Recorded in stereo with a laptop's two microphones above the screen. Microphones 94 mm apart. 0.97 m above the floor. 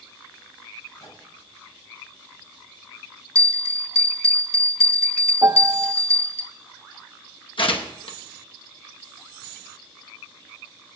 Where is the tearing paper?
65° left (ahead or behind), 0.9 m.